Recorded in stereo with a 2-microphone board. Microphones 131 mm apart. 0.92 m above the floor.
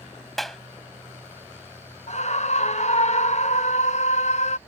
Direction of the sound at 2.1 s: 55° left (ahead or behind).